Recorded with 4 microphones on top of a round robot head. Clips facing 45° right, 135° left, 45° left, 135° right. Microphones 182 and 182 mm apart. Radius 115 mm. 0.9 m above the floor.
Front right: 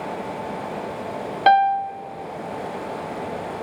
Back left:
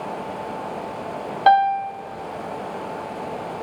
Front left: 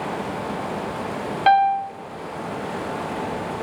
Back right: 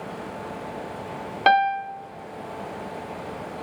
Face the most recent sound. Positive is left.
turn(degrees=-110)